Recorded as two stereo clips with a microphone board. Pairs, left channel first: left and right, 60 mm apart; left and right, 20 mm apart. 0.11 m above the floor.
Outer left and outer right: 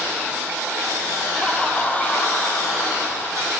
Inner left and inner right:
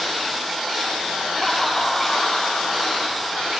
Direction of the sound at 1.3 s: 15° left (ahead or behind).